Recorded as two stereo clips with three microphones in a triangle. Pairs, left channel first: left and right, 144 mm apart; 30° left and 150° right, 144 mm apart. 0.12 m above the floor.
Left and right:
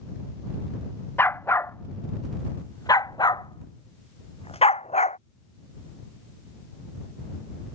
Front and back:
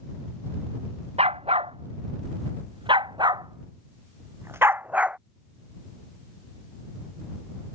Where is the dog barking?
165° left; by 5.2 s 125° left.